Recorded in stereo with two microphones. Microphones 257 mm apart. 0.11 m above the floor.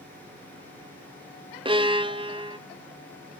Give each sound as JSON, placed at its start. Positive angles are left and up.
{"t": 1.6, "sound": "a violin", "side_deg": -20, "distance_m": 0.6}